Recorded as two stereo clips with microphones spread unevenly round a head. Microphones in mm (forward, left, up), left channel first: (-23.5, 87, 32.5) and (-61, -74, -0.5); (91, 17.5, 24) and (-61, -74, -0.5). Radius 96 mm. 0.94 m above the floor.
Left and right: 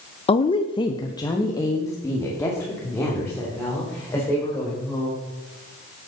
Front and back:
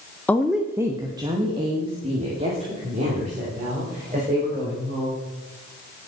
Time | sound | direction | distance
0.3 | a woman speaking | 120° left | 0.6 m